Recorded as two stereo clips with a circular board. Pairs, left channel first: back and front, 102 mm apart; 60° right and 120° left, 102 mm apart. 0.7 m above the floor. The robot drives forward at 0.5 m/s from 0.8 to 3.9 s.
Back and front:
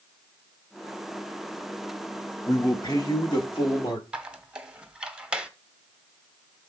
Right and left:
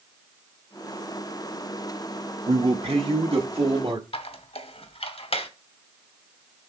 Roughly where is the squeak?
Right.